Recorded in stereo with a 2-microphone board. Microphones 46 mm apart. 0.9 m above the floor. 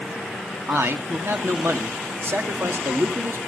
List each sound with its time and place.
0.7 s a man speaking: 65° right (ahead or behind), 1.7 m